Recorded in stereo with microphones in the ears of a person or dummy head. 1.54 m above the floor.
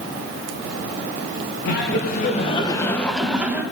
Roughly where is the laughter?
Left.